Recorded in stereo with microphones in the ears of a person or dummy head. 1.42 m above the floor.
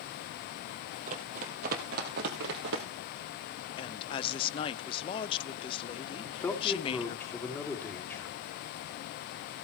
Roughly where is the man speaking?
Centre.